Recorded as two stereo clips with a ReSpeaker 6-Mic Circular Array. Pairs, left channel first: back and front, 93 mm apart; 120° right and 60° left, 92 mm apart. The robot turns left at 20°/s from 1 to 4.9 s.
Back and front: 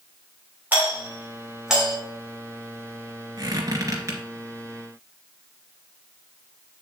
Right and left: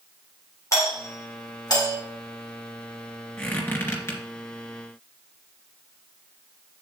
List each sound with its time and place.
0.7 s a doorbell: 70° right, 3 m; by 2.0 s 85° right, 3 m
3.4 s a squeak: 45° right, 2.5 m; by 4.2 s 60° right, 2.5 m